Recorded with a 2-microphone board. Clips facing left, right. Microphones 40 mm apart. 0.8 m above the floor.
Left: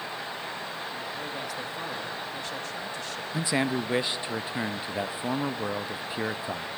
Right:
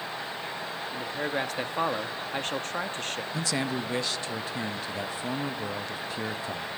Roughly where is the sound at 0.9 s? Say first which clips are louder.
Right 4 dB; right.